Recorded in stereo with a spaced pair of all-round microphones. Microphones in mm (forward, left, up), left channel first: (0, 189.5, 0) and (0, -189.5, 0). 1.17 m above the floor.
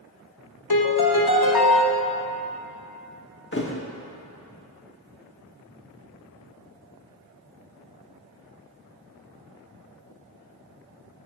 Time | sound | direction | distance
0.7 | a piano | 70° left (ahead or behind) | 0.9 m
3.5 | a thud | 30° left (ahead or behind) | 0.9 m